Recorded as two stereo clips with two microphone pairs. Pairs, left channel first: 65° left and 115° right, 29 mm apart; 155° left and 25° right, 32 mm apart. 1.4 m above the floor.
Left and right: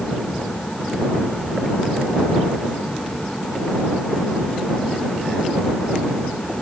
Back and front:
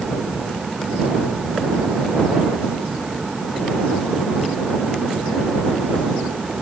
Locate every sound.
Only background noise.